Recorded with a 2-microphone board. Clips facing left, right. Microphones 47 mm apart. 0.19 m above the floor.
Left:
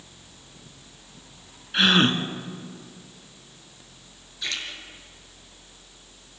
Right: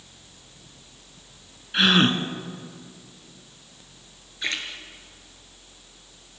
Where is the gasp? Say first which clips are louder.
Even; centre (ahead or behind), 1.5 m.